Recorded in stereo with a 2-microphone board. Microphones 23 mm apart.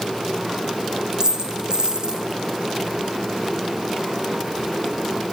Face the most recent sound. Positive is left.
turn(degrees=-35)  # may be behind; listen again after turning